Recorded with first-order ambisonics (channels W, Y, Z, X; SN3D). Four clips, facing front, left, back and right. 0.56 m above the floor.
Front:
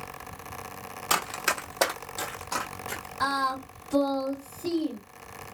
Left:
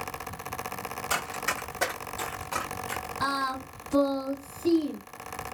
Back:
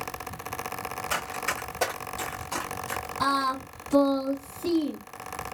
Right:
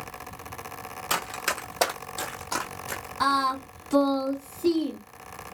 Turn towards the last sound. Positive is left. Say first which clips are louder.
# right 6 dB, back 1 dB
turn(degrees=-100)